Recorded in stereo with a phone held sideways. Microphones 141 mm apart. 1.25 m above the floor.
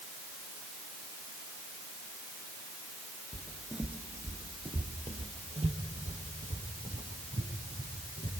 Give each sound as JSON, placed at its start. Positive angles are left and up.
{"t": 3.3, "sound": "footsteps", "side_deg": 15, "distance_m": 1.3}